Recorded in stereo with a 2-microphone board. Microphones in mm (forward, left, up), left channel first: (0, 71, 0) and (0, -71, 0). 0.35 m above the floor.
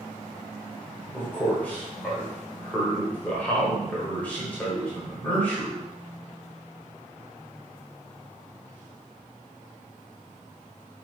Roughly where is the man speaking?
Centre.